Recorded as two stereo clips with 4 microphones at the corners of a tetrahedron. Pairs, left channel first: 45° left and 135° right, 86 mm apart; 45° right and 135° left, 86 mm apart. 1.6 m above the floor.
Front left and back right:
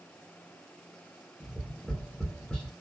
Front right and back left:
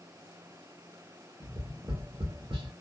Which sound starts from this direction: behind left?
Tapping, at 1.4 s.